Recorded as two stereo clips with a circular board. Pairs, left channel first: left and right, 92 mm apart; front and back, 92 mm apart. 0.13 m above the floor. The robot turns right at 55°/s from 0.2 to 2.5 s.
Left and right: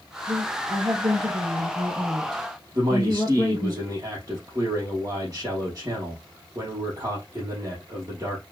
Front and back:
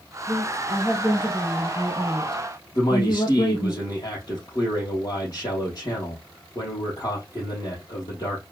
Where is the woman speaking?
115° right, 1.9 m; by 3.7 s 5° left, 1.9 m.